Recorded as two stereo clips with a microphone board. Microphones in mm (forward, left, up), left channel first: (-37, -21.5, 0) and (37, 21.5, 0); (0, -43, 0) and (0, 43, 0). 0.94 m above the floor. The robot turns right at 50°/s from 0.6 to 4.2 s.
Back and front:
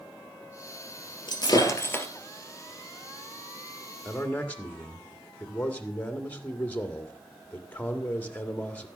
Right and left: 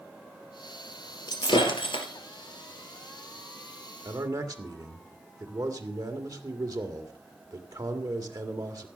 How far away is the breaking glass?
About 2.5 m.